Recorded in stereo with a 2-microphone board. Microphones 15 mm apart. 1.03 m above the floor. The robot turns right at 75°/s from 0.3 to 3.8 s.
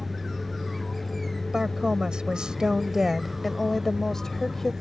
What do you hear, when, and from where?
0.0 s a vehicle: 10° right; by 4.8 s 110° right
1.5 s a woman speaking: 140° right; by 4.7 s 30° left